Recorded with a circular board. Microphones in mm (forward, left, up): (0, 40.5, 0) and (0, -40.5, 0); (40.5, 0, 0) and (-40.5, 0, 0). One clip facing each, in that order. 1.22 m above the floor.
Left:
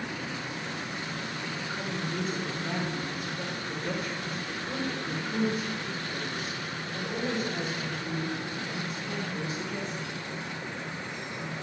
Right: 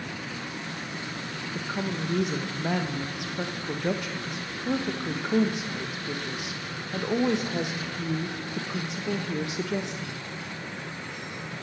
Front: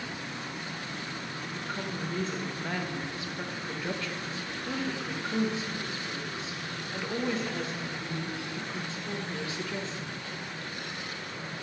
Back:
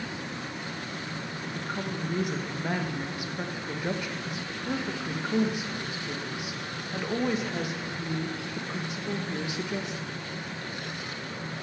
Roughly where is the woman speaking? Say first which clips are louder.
Right 6 dB, back 2 dB; right.